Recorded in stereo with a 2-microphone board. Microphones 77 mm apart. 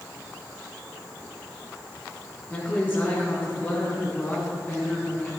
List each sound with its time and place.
2.5 s a woman speaking: 25° left (ahead or behind), 5 m